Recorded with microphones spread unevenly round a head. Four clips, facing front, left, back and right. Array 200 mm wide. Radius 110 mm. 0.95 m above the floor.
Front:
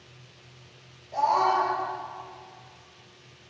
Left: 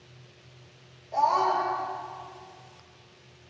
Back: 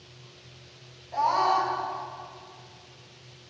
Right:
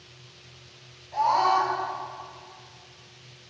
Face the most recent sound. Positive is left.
turn(degrees=105)